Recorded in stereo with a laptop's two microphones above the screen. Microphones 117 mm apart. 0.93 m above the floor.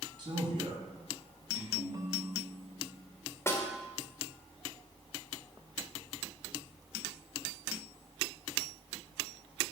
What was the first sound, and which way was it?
A man speaking, 40° right (ahead or behind).